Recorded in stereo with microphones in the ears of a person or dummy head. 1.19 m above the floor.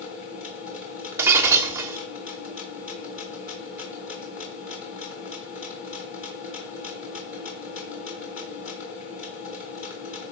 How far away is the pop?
I don't hear a pop.